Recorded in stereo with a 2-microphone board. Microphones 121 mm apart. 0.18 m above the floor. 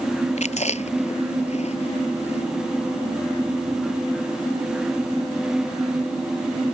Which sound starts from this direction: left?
Chewing, at 0.4 s.